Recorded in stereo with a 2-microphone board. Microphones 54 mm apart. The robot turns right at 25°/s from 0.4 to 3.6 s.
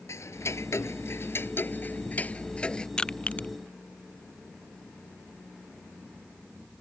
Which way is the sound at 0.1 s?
65° left (ahead or behind).